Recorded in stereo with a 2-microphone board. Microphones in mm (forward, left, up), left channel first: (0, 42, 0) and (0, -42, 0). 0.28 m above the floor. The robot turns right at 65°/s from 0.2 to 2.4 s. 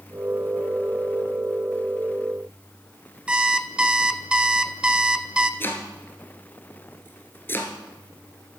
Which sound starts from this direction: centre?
An alarm clock, at 3.3 s.